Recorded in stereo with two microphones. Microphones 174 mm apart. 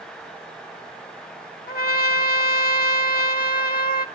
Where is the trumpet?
60° left (ahead or behind), 1.6 m.